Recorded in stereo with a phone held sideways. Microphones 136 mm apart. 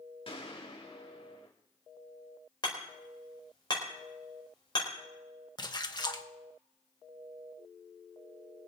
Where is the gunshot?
40° left (ahead or behind), 3 m.